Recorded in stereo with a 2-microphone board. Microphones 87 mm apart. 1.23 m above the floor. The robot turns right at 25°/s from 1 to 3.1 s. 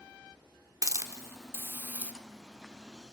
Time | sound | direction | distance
0.8 | a hiss | 40° right (ahead or behind) | 1.3 m